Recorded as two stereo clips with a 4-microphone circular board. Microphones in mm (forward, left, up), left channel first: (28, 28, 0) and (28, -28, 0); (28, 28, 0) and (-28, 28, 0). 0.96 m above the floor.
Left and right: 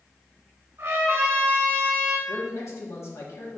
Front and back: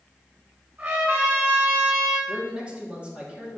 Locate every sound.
0.8 s a trumpet: 135° right, 4 m
2.3 s a man speaking: 110° left, 2.5 m